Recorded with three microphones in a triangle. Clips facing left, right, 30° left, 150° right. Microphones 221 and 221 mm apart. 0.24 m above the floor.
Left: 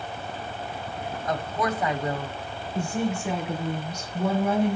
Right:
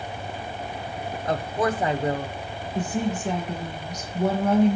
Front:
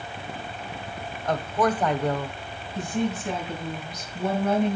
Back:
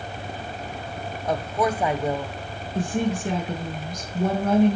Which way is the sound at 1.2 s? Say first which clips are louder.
Right 3 dB, even; 80° right.